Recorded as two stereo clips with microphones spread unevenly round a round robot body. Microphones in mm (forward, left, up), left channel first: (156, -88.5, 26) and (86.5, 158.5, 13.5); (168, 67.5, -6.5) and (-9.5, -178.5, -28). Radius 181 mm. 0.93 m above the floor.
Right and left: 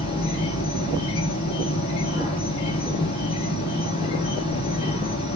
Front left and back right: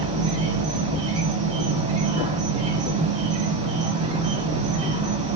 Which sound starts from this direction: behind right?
An insect, at 0.0 s.